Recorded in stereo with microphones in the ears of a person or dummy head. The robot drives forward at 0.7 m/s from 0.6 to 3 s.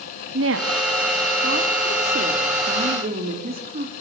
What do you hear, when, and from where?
0.3 s a woman speaking: 70° right (ahead or behind), 2.5 m; by 3.9 s 40° right (ahead or behind), 3 m